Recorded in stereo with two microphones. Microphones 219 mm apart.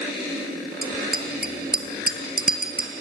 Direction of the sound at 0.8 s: 50° right (ahead or behind).